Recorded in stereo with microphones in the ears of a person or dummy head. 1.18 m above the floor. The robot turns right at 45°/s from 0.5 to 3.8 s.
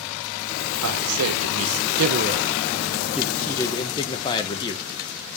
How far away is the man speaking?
About 0.8 m.